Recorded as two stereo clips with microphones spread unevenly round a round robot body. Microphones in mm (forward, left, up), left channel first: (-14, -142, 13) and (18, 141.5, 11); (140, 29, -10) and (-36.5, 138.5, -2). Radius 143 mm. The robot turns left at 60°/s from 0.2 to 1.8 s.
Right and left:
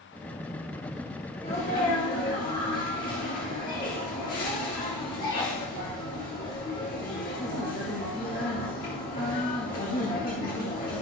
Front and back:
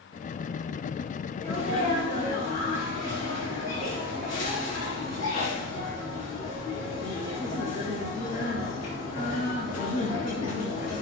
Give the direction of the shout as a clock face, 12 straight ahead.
I don't hear a shout.